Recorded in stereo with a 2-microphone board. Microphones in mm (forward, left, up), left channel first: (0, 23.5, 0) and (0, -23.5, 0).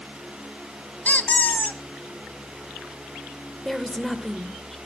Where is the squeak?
40° left (ahead or behind), 0.6 m.